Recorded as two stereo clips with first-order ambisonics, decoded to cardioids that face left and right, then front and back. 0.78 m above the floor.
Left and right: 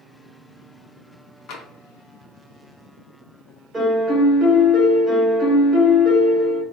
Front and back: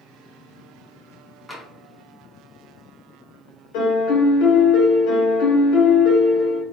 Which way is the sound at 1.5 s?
90° left.